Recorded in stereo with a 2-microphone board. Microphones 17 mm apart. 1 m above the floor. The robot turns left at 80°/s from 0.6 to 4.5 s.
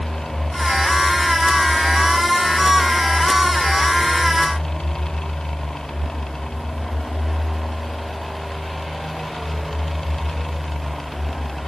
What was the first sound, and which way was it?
Only background noise.